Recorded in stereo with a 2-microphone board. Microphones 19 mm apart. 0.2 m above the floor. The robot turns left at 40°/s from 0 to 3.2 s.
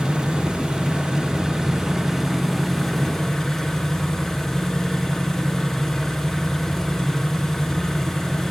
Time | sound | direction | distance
0.0 | an engine running | 70° right | 2.0 m